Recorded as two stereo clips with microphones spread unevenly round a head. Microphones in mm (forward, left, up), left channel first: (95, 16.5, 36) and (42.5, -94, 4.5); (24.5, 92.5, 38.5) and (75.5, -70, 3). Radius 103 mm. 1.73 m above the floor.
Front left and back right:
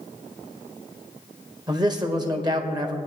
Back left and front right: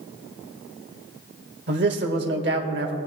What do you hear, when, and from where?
1.7 s a man speaking: 55° right, 1.7 m